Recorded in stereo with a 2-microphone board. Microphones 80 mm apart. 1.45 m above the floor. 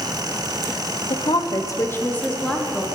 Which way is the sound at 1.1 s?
80° left.